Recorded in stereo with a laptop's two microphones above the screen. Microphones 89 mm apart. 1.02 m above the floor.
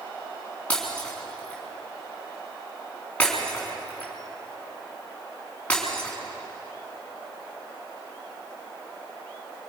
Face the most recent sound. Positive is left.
turn(degrees=15)  # may be behind; listen again after turning